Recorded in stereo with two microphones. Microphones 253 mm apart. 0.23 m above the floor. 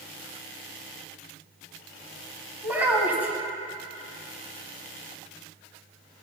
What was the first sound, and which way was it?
A child speaking, 5° right (ahead or behind).